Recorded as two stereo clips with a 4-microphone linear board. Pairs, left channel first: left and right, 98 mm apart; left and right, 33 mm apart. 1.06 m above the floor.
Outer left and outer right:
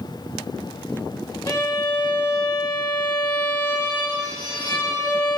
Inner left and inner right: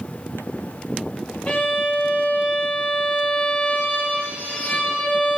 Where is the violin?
40° left (ahead or behind), 1.1 m.